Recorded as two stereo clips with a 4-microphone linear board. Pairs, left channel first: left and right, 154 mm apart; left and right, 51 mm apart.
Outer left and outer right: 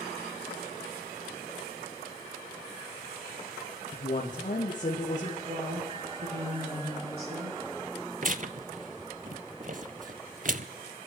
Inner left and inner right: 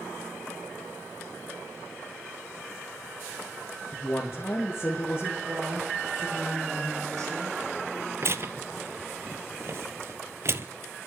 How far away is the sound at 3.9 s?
About 2.5 m.